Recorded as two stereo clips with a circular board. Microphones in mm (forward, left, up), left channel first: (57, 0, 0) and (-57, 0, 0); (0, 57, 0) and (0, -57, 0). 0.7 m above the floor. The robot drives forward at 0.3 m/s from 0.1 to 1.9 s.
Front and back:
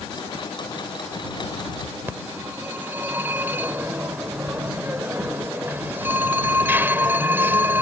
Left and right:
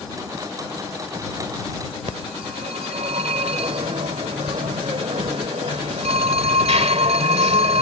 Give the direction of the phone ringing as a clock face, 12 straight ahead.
4 o'clock.